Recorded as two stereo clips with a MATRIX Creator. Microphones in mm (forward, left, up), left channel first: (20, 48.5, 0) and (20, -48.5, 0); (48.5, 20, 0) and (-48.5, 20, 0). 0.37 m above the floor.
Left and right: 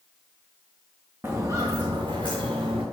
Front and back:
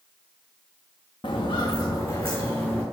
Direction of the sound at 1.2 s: 25° right.